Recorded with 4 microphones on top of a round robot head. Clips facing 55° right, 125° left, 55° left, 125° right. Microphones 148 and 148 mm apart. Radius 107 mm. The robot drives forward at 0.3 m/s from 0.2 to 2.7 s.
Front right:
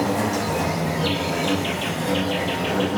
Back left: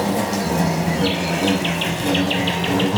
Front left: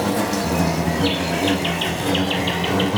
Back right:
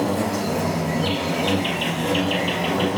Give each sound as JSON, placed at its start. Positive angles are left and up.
{"t": 0.0, "sound": "an insect", "azimuth_deg": 70, "distance_m": 0.9}